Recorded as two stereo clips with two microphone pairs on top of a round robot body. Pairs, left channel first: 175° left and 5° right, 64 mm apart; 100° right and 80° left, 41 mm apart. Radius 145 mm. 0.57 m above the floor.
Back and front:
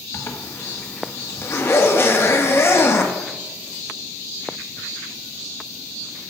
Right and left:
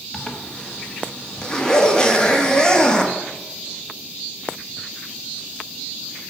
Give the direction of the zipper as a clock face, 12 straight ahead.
5 o'clock.